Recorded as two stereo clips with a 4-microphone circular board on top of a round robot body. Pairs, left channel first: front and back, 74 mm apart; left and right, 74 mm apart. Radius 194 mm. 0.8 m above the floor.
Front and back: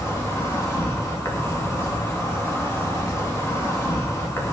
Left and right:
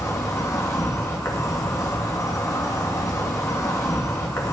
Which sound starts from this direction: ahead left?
An insect, at 0.0 s.